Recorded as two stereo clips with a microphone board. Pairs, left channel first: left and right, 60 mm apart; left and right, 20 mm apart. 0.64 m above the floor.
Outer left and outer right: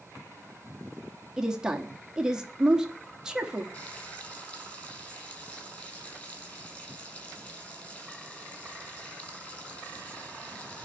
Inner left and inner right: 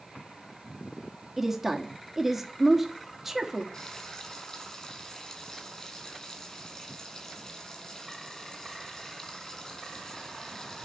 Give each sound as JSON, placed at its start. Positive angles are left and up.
{"t": 1.4, "sound": "a woman speaking", "side_deg": -10, "distance_m": 1.3}
{"t": 3.7, "sound": "frying", "side_deg": 30, "distance_m": 6.0}